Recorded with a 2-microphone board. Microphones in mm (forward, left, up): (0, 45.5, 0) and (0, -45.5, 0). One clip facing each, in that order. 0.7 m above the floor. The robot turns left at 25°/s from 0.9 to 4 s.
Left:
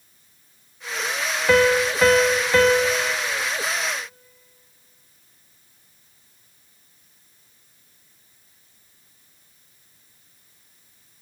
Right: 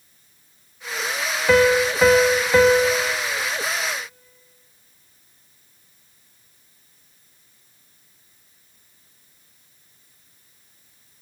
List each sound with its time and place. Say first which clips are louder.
1.5 s a piano: right 1 dB; 5° right (ahead or behind), 0.8 m; by 3.1 s 15° right (ahead or behind), 0.8 m